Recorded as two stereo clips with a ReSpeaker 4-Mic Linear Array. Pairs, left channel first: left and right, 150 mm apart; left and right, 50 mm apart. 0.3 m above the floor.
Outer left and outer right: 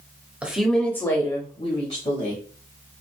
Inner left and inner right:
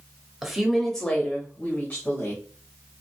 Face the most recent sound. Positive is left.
turn(degrees=50)  # may be behind; listen again after turning